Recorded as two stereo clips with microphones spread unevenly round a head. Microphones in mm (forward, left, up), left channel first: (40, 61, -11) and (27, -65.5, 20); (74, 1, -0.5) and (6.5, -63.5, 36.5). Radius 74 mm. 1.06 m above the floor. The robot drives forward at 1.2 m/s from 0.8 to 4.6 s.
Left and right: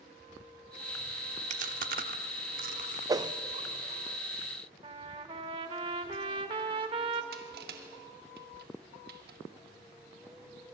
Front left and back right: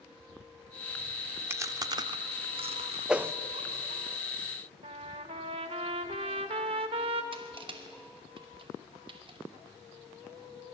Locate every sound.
1.5 s chewing: 75° right, 1.6 m; by 4.0 s 150° right, 3 m
3.1 s a whoosh: 30° right, 0.6 m; by 3.3 s 75° right, 0.5 m
4.8 s a trumpet: 145° right, 1.4 m
7.3 s crushing: 105° right, 2.5 m